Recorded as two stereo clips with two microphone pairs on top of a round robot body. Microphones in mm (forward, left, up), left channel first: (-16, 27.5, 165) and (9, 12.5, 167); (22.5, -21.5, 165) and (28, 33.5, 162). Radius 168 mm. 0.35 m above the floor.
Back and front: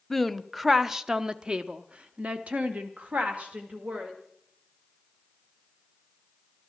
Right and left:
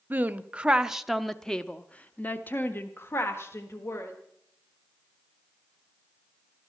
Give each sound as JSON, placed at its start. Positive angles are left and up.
{"t": 0.1, "sound": "a woman speaking", "azimuth_deg": 70, "distance_m": 1.2}